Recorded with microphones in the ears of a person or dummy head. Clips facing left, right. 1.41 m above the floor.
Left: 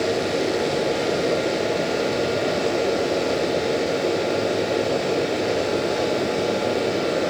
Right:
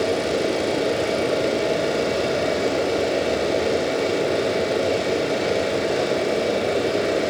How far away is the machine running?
About 1.6 m.